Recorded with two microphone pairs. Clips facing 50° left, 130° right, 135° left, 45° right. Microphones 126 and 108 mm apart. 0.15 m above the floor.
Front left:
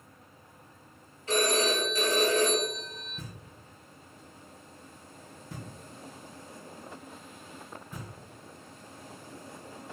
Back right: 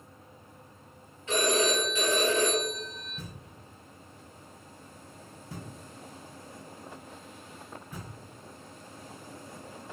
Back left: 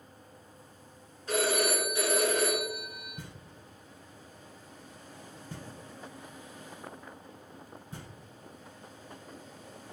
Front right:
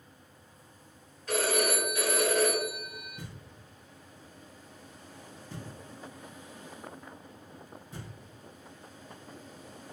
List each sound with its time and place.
1.3 s a phone ringing: 80° left, 1.5 m
3.2 s knocking: 155° left, 1.6 m